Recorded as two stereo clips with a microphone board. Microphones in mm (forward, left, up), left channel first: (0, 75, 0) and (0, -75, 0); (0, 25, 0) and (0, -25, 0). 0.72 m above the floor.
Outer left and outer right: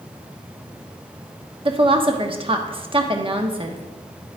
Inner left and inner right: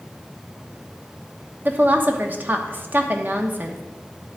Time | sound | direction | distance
1.6 | a woman speaking | 35° right (ahead or behind) | 1.1 m